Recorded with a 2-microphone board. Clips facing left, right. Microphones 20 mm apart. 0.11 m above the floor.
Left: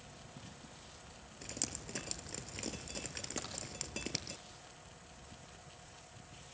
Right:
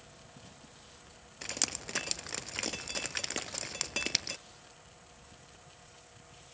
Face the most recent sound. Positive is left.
turn(degrees=-20)  # may be behind; listen again after turning